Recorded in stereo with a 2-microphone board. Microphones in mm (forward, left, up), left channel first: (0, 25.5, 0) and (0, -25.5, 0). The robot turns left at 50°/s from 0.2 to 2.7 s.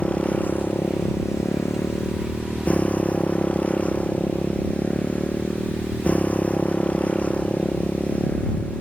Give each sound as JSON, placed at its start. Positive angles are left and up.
{"t": 0.0, "sound": "a motorcycle", "azimuth_deg": 155}